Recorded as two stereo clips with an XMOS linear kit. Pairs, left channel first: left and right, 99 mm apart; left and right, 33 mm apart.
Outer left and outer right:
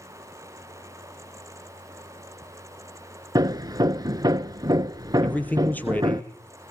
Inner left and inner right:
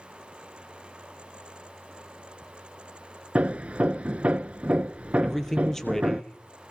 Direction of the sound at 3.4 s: 40° right (ahead or behind).